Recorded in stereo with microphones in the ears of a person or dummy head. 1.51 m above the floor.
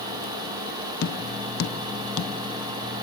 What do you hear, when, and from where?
1.0 s tapping: 65° left (ahead or behind), 1.1 m